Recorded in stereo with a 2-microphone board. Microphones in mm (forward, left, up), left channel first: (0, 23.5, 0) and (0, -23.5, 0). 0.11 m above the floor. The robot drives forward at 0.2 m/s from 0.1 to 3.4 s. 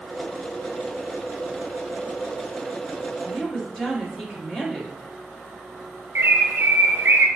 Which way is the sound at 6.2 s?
50° right (ahead or behind).